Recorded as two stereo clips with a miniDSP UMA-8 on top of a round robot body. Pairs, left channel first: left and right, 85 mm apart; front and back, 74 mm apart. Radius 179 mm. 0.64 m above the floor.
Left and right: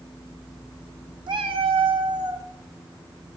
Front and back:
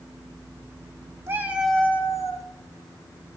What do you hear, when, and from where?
1.3 s a cat meowing: 125° right, 1.1 m; by 2.5 s 40° right, 1.4 m